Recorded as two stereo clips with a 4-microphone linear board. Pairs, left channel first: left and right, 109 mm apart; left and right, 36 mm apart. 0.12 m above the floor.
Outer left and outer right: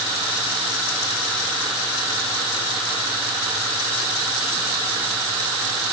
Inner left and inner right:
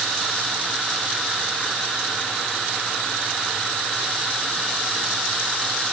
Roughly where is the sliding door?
No sliding door in this recording.